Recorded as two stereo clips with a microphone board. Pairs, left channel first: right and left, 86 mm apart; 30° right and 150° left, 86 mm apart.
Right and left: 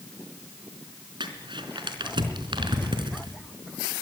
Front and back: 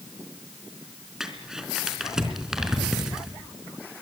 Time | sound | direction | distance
1.2 | crumpling | 65° left | 4 m